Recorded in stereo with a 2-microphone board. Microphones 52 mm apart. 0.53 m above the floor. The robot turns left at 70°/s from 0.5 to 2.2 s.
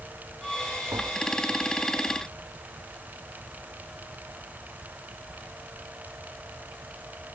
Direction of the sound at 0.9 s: 75° right (ahead or behind).